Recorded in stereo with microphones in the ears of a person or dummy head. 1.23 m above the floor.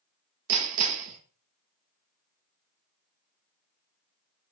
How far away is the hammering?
About 1.3 m.